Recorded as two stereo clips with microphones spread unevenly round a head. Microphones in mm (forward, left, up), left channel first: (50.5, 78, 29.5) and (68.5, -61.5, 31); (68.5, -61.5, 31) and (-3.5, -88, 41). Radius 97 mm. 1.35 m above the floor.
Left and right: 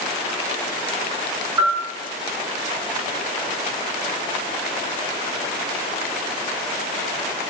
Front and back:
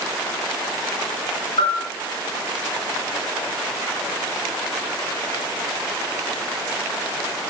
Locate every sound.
1.6 s a bell: 10° right, 4 m